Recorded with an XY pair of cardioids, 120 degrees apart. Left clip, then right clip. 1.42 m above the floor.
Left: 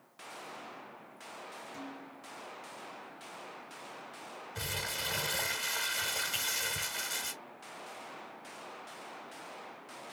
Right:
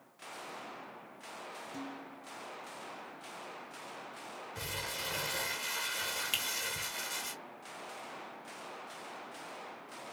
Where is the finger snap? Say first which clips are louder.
Right 1 dB; 60° right, 2 m.